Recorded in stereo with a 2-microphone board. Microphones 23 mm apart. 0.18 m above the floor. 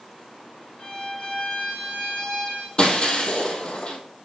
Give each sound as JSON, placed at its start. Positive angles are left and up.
{"t": 0.8, "sound": "a violin", "side_deg": 40, "distance_m": 2.0}
{"t": 2.8, "sound": "breaking glass", "side_deg": 40, "distance_m": 2.0}